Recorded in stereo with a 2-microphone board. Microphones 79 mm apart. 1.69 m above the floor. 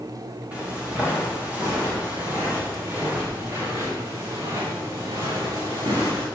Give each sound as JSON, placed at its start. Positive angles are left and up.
{"t": 0.5, "sound": "footsteps", "side_deg": -15, "distance_m": 8.0}